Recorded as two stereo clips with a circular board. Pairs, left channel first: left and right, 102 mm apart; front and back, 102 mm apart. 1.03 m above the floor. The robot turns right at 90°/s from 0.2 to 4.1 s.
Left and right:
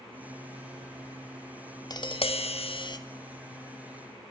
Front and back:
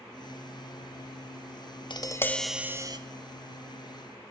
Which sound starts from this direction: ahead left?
Tapping, at 1.9 s.